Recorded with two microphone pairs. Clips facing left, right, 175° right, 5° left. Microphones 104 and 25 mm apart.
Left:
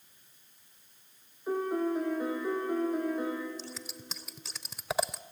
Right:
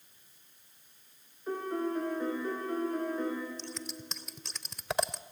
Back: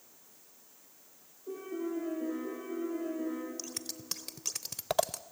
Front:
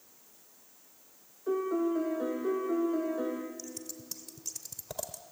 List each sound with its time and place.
1.5 s a piano: 5° left, 4.5 m
3.6 s scissors: 175° left, 0.6 m